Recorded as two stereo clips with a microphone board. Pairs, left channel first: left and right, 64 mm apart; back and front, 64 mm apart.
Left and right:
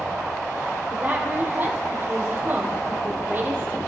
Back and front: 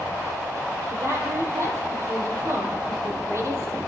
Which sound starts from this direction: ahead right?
A woman speaking, at 0.9 s.